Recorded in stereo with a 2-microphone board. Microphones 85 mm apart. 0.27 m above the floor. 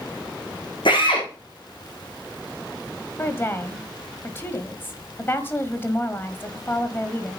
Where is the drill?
75° left (ahead or behind), 7 m.